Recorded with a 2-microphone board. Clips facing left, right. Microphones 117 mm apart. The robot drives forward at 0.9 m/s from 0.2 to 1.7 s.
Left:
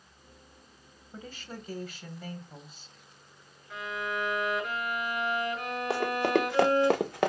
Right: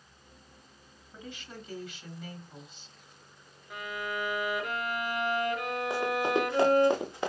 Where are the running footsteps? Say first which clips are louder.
Left 2 dB; 85° left, 2 m; by 7.3 s 75° left (ahead or behind), 1.2 m.